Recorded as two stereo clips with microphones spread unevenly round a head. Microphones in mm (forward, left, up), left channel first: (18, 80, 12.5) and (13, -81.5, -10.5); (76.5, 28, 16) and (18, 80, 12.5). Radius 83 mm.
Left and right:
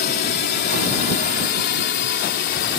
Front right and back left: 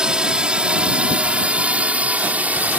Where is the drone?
60° left; by 2.8 s 70° left.